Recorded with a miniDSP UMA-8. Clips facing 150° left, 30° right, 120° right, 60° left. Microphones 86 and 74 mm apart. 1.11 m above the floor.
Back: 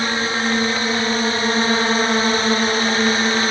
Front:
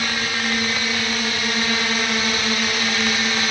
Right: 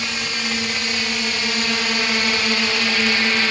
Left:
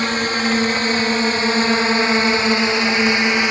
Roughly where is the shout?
I don't hear a shout.